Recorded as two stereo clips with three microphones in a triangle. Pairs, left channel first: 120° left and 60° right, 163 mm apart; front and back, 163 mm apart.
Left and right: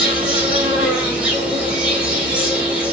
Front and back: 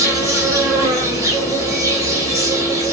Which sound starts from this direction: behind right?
An insect, at 0.0 s.